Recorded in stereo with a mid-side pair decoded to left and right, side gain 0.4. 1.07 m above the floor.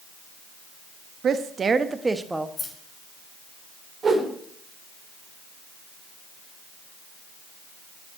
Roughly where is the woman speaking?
Ahead right.